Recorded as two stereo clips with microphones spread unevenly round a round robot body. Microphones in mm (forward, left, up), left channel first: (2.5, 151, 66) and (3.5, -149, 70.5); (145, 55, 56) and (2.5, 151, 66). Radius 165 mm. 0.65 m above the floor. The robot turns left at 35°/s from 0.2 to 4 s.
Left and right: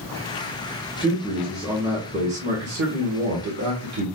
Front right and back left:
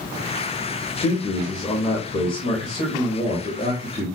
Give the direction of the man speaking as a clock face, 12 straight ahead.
11 o'clock.